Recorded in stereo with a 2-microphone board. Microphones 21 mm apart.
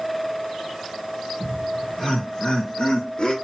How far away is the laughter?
About 1.0 m.